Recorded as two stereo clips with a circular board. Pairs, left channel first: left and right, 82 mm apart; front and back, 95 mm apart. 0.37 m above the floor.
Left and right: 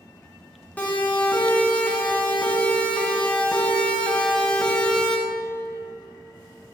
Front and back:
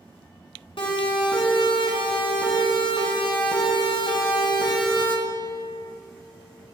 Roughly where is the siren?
Ahead.